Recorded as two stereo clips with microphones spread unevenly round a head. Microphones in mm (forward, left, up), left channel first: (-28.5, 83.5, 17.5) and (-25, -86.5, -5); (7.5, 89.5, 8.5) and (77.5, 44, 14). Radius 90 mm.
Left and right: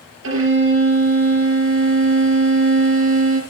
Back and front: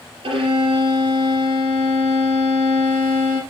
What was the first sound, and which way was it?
A violin, 60° right.